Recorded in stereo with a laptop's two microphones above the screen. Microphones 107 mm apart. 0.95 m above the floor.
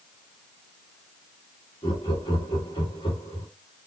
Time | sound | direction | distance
1.8 | laughter | 50° left (ahead or behind) | 1.4 m